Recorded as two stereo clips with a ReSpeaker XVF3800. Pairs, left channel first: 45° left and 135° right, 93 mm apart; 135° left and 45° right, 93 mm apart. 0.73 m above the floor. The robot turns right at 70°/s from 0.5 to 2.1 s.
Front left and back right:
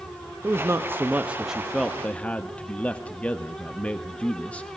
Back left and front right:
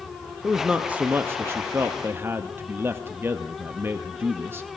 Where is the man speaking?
130° right, 0.5 m; by 4.7 s 15° right, 0.5 m.